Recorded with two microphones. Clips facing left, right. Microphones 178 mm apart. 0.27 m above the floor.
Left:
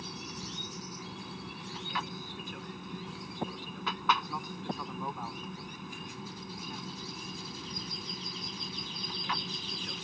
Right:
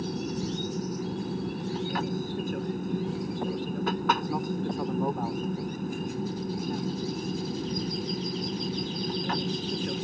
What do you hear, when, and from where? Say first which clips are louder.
0.0 s an aircraft: right 13 dB; 50° right (ahead or behind)